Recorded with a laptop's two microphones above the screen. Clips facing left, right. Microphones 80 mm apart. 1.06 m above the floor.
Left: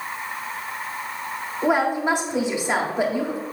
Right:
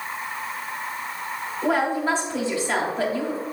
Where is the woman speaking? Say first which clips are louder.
Left 2 dB; 20° left (ahead or behind), 1.7 m.